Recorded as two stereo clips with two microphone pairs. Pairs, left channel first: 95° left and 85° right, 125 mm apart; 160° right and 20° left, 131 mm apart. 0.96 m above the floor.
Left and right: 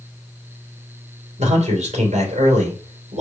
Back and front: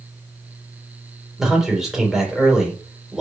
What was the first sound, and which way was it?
A man speaking, 65° right.